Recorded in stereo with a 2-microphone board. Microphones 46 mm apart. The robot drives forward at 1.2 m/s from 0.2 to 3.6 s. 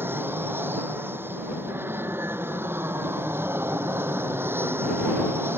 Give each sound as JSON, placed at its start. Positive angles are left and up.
{"t": 0.0, "sound": "an aircraft", "side_deg": -55}